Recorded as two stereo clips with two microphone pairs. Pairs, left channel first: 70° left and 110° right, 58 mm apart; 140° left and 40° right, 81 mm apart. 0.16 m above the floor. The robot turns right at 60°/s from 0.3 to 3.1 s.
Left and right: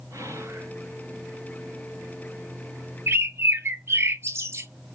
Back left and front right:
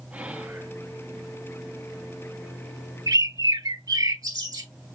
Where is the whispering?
105° right, 1.9 m; by 0.7 s 80° right, 1.9 m.